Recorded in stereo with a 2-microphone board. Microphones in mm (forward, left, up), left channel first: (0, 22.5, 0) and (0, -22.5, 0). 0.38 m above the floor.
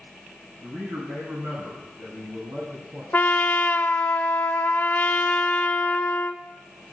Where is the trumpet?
40° left (ahead or behind), 0.6 m.